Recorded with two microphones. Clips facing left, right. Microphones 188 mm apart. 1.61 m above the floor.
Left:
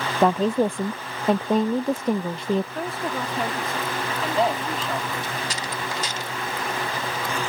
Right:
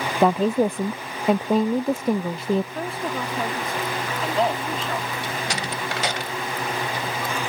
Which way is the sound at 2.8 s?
Centre (ahead or behind).